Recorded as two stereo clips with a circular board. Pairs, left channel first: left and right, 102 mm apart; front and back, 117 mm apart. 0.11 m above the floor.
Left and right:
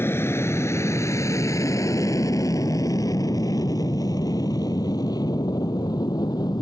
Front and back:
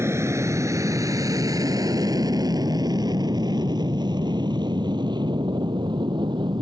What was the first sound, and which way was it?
An aircraft, 135° left.